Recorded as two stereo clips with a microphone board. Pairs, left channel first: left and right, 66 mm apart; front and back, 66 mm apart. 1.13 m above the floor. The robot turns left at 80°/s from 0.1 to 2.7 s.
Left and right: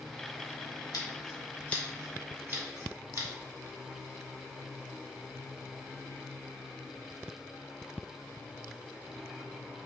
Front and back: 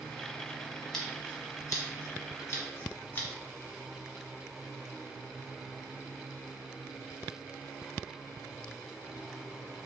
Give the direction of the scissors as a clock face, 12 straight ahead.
9 o'clock.